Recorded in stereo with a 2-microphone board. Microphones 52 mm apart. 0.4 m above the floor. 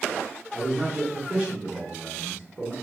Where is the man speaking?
20° right (ahead or behind), 1.1 m.